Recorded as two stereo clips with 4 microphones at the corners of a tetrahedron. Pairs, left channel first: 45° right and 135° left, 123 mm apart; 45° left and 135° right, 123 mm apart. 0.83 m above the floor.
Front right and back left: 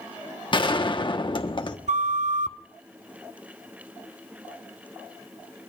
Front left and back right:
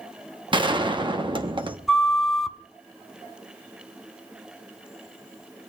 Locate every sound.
0.5 s a gunshot: 90° right, 1.1 m
1.9 s a flute: 135° left, 0.8 m